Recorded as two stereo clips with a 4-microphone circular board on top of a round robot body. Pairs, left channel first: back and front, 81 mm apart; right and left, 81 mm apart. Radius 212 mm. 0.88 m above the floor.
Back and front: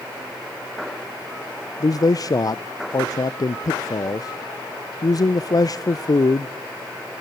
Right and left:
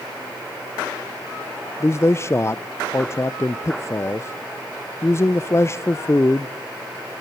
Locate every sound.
1.8 s a man speaking: 145° right, 0.5 m